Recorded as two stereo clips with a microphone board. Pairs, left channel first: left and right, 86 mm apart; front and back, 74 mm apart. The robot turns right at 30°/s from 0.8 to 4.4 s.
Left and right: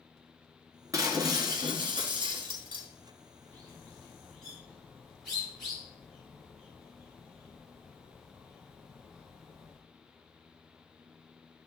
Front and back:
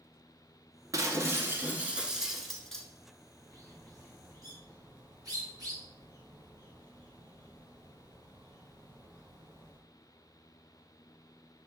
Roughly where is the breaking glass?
Behind right.